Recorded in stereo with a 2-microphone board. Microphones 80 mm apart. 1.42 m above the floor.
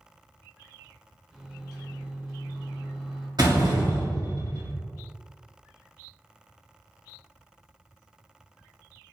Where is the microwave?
5° right (ahead or behind), 1.0 m.